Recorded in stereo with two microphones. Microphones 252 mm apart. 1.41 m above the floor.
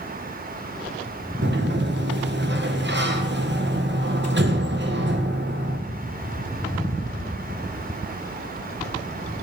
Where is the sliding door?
45° right (ahead or behind), 1.0 m.